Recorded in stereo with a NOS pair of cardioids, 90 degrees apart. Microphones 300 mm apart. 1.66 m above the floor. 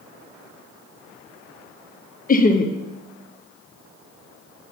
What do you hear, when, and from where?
2.3 s laughter: 30° left, 0.9 m